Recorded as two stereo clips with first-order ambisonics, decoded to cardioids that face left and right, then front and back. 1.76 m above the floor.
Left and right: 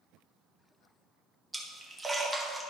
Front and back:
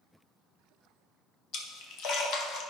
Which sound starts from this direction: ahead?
A splash, at 1.5 s.